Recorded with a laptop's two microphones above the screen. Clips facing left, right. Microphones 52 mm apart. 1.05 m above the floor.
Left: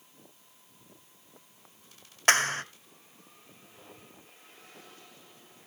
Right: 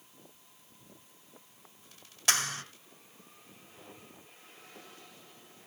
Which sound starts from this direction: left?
A clap, at 2.3 s.